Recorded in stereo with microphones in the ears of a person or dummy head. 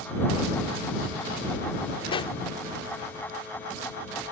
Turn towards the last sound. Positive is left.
turn(degrees=25)  # may be behind; listen again after turning